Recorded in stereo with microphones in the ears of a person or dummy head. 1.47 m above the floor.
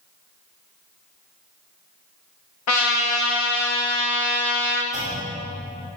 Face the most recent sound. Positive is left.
turn(degrees=65)  # may be behind; listen again after turning